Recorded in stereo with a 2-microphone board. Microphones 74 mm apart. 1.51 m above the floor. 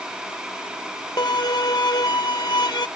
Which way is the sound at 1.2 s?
65° left (ahead or behind).